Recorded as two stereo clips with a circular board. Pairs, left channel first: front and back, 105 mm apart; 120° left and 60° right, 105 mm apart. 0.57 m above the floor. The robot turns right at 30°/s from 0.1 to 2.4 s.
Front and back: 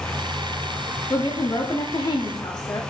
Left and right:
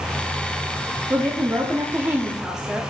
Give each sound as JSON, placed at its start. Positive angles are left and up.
{"t": 1.1, "sound": "a woman speaking", "azimuth_deg": -20, "distance_m": 0.8}